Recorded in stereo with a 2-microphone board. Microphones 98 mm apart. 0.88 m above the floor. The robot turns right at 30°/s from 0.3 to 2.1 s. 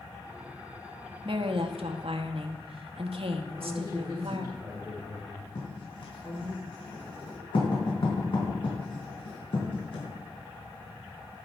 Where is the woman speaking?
60° right (ahead or behind), 1.0 m; by 4.5 s 70° right (ahead or behind), 1.0 m.